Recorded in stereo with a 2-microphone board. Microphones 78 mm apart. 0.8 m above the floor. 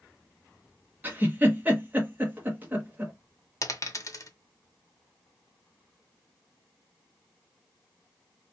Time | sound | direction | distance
1.0 | a giggle | 25° right (ahead or behind) | 0.9 m
3.6 | a dropped coin | 45° left (ahead or behind) | 0.7 m